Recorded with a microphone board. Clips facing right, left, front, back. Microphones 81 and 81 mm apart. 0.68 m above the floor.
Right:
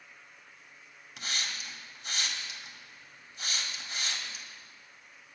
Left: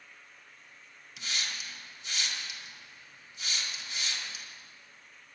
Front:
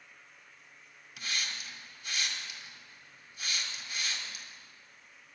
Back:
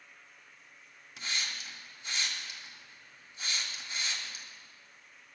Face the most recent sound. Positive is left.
turn(degrees=-125)